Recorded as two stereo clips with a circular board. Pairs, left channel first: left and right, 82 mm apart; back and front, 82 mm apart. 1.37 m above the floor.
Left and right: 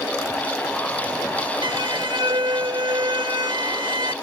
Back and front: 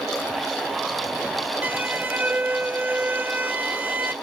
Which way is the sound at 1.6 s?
70° right.